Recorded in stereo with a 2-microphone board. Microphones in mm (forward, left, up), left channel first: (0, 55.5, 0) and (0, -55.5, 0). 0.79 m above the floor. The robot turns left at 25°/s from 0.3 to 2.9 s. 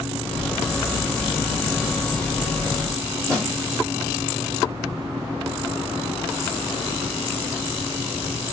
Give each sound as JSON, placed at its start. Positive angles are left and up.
{"t": 3.3, "sound": "a snare drum", "side_deg": -35, "distance_m": 1.6}